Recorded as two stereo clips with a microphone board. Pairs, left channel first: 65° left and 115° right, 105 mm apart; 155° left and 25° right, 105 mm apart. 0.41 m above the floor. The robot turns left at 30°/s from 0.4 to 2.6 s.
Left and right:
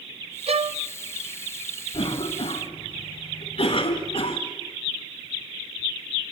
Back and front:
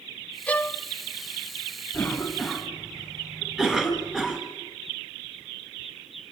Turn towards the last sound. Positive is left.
turn(degrees=75)